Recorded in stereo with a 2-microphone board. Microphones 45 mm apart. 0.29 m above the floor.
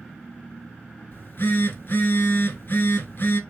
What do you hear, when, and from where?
1.1 s a phone buzzing: 55° left (ahead or behind), 1.0 m